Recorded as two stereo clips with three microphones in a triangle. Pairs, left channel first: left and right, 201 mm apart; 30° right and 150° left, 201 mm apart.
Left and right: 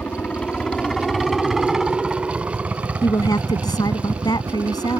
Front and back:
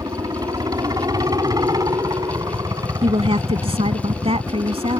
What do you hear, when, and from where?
0.0 s a helicopter: 160° left; by 5.0 s 150° right
3.0 s a woman speaking: 135° left